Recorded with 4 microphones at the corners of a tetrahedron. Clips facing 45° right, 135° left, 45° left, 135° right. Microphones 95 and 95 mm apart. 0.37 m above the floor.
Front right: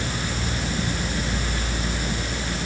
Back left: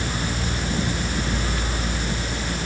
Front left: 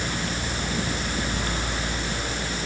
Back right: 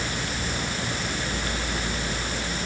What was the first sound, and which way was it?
Only background noise.